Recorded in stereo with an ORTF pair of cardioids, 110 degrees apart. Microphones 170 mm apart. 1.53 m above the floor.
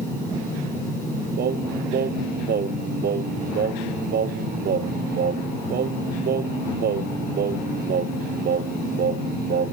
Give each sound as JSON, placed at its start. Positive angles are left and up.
{"t": 1.4, "sound": "singing", "azimuth_deg": -65}